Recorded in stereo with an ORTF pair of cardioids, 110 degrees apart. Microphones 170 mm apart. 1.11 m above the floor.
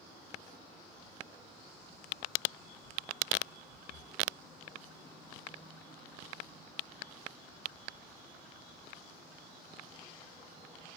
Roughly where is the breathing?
Ahead left.